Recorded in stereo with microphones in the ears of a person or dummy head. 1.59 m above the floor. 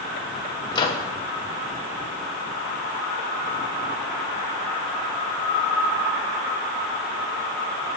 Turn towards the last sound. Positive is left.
turn(degrees=25)  # may be behind; listen again after turning